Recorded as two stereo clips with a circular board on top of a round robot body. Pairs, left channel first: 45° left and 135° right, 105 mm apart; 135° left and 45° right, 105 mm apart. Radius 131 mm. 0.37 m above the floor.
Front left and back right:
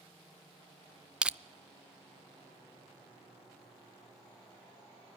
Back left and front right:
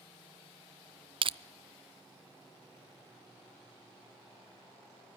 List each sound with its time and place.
1.2 s crushing: 55° right, 0.6 m